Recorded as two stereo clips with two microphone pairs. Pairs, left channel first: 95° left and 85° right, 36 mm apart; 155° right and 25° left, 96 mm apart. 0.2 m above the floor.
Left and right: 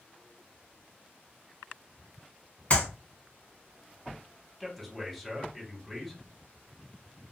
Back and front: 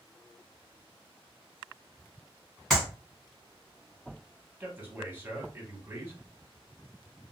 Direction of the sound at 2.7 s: 120° left.